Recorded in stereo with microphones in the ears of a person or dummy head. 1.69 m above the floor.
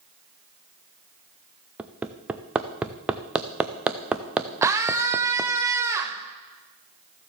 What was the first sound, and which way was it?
Hammering, centre (ahead or behind).